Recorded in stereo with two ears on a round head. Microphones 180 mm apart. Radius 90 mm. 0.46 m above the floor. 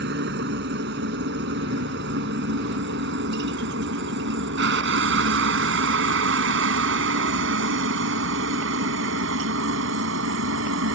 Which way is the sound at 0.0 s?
55° right (ahead or behind).